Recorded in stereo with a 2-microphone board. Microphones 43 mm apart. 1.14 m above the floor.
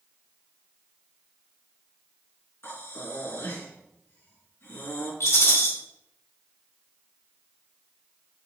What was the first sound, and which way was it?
Breathing, 70° left (ahead or behind).